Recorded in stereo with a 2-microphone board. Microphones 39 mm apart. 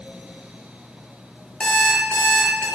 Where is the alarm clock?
20° left (ahead or behind), 0.6 m.